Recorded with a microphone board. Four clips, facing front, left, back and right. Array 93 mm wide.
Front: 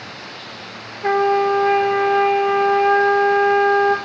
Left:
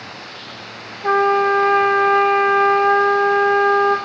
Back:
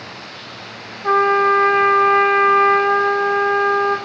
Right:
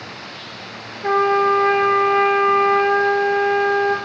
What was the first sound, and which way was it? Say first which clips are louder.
A trumpet: left 1 dB, back 1 dB; 15° right.